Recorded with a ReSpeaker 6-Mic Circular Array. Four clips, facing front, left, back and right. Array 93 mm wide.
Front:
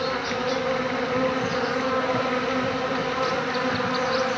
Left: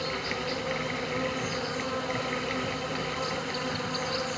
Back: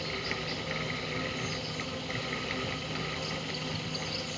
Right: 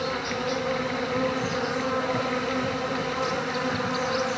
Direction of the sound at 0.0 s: 20° right.